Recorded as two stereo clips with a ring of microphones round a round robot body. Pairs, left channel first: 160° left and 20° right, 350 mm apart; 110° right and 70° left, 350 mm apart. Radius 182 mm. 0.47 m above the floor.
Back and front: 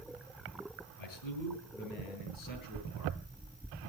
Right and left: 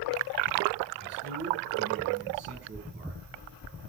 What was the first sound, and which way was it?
A man speaking, 130° left.